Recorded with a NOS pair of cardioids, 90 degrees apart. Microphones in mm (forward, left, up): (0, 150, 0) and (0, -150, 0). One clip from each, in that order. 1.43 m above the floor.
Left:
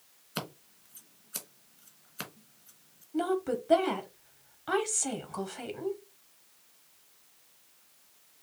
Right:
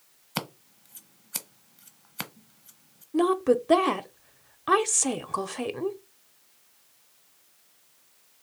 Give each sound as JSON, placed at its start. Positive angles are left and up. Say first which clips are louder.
{"t": 0.3, "sound": "scissors", "louder": "right 5 dB", "azimuth_deg": -35, "distance_m": 1.1}
{"t": 3.1, "sound": "a woman speaking", "louder": "right 8 dB", "azimuth_deg": -35, "distance_m": 0.8}